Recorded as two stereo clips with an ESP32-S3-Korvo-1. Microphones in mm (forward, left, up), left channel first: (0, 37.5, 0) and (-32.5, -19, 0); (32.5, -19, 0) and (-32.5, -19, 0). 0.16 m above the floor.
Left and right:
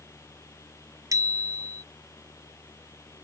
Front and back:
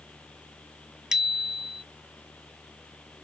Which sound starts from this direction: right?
A bicycle bell, at 1.1 s.